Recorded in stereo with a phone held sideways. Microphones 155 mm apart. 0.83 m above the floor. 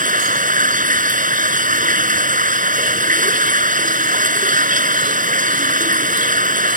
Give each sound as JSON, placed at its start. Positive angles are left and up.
{"t": 0.0, "sound": "running water", "side_deg": -60}